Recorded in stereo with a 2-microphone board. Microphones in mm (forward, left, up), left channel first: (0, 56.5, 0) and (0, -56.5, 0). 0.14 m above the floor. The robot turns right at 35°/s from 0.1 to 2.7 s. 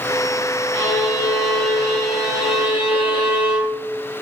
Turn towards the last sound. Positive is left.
turn(degrees=100)